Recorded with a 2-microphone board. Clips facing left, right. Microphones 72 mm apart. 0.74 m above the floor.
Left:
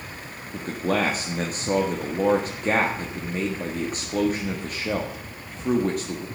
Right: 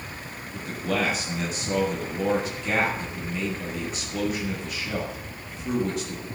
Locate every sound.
0.5 s a man speaking: 45° left (ahead or behind), 1.6 m